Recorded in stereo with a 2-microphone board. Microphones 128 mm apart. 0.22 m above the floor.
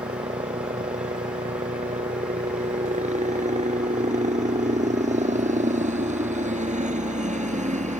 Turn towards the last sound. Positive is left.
turn(degrees=-65)  # may be behind; listen again after turning